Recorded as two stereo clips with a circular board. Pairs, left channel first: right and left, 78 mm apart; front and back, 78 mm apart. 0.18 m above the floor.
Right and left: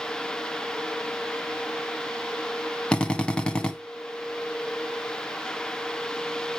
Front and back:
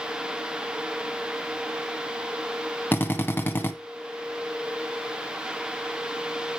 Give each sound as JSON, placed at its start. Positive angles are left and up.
{"t": 2.9, "sound": "a drill", "azimuth_deg": -30, "distance_m": 1.0}